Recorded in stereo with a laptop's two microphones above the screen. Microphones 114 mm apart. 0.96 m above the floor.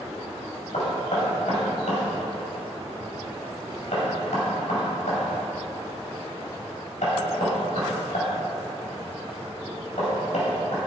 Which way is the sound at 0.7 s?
85° left.